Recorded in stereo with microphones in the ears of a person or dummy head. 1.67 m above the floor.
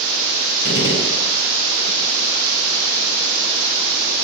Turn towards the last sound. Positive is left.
turn(degrees=75)  # may be behind; listen again after turning